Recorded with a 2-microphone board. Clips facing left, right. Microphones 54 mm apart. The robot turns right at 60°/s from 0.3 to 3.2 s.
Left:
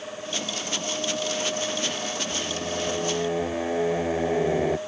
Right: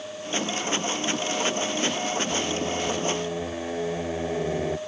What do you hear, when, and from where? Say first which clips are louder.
2.3 s singing: right 3 dB; 35° right; by 4.8 s 20° left